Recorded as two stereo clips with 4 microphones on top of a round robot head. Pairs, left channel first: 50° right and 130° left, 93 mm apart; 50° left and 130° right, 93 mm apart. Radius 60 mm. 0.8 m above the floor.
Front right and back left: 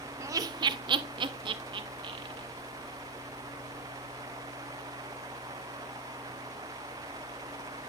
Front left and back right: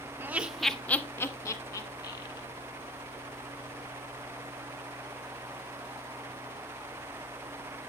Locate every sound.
0.2 s laughter: 175° left, 0.6 m; by 2.5 s 95° left, 1.6 m